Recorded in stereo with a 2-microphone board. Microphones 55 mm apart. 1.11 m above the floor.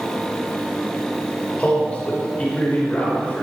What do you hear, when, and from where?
1.6 s a man speaking: 20° left (ahead or behind), 5.5 m